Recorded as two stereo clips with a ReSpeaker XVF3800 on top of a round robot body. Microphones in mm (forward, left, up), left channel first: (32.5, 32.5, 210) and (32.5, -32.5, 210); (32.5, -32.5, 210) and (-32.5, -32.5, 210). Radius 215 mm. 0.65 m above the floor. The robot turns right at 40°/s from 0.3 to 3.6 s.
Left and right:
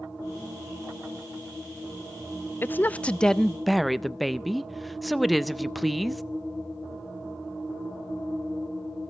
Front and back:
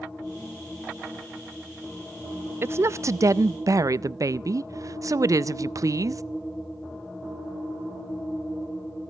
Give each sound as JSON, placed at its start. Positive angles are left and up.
{"t": 2.6, "sound": "a woman speaking", "azimuth_deg": 140, "distance_m": 0.6}